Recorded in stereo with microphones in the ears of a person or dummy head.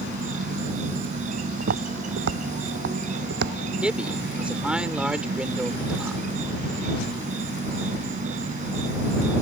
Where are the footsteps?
55° right (ahead or behind); by 3.5 s 60° right (ahead or behind).